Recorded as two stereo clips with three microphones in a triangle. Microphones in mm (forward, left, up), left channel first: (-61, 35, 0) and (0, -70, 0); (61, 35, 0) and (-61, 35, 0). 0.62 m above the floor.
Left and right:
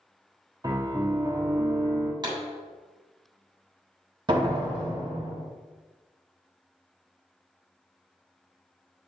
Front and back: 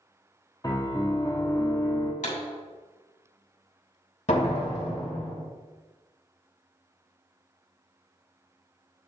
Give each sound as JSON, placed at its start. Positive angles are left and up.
{"t": 0.6, "sound": "a piano", "azimuth_deg": -30, "distance_m": 0.8}
{"t": 2.2, "sound": "a pop", "azimuth_deg": -5, "distance_m": 2.5}
{"t": 4.3, "sound": "a door slam", "azimuth_deg": -10, "distance_m": 2.0}